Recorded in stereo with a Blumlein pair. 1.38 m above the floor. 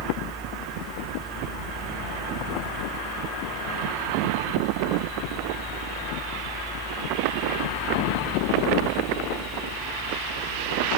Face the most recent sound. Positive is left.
turn(degrees=-15)